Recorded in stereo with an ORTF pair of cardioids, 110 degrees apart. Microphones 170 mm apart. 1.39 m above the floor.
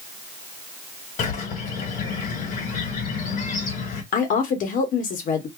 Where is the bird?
60° left, 1.4 m.